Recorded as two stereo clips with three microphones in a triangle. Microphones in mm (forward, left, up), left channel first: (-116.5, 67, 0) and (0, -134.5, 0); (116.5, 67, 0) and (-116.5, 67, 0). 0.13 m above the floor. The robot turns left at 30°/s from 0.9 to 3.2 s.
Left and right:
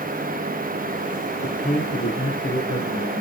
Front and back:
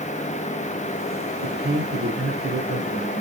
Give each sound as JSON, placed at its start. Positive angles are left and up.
{"t": 1.4, "sound": "a man speaking", "azimuth_deg": -175, "distance_m": 4.5}